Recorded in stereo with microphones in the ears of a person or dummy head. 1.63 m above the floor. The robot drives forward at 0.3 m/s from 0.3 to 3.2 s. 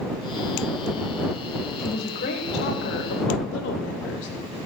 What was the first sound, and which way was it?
A woman speaking, 50° left (ahead or behind).